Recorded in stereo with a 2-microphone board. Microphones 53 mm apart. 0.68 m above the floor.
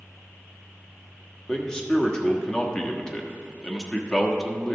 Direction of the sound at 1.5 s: 10° left (ahead or behind).